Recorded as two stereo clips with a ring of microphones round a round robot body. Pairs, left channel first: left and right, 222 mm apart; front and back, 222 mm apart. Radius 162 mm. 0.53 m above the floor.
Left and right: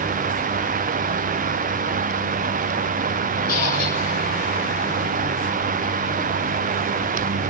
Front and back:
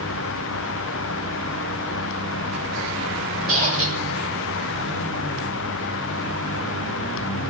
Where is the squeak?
130° left, 7.5 m.